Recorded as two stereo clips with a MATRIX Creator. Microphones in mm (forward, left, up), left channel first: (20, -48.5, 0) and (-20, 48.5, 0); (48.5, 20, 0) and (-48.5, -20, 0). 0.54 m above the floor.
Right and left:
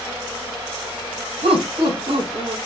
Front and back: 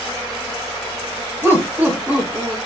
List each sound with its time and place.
1.4 s laughter: 135° left, 3.5 m; by 2.6 s 125° left, 4.5 m